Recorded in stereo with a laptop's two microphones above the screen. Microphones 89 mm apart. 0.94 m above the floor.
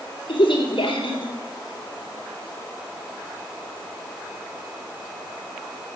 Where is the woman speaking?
70° left (ahead or behind), 3.5 m.